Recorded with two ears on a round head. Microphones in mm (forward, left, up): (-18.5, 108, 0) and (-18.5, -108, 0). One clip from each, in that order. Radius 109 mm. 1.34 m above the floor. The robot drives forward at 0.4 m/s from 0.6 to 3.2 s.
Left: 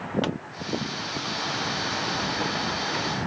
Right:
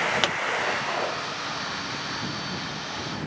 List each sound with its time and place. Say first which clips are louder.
0.2 s a pop: right 6 dB; 65° right (ahead or behind)